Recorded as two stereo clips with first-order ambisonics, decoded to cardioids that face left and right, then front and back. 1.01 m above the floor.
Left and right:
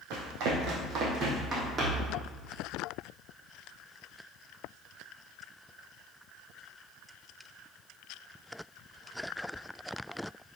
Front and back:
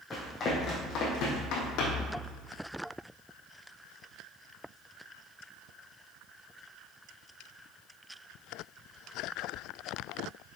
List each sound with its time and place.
0.1 s running footsteps: 70° right, 3 m; by 2.1 s 20° right, 3 m